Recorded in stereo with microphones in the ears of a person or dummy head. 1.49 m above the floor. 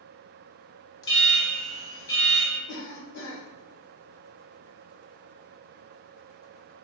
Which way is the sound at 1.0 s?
30° left (ahead or behind).